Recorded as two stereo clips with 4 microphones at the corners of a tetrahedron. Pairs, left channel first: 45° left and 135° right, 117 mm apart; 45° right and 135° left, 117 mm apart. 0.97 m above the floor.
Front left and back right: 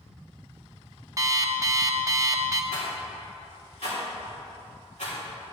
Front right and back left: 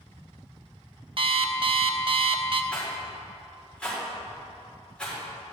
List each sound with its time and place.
1.2 s an alarm clock: 170° left, 0.6 m
2.7 s a rattle: 35° left, 3.5 m